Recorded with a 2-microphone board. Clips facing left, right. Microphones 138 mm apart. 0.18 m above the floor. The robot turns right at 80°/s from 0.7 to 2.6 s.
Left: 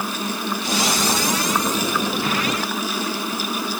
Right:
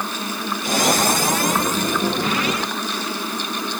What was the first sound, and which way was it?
Only background noise.